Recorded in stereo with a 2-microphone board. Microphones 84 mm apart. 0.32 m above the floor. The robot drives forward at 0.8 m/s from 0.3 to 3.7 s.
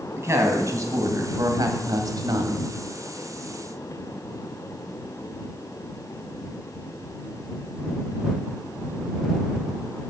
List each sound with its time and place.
0.2 s a woman speaking: 35° right (ahead or behind), 2.5 m; by 2.7 s 50° right (ahead or behind), 1.7 m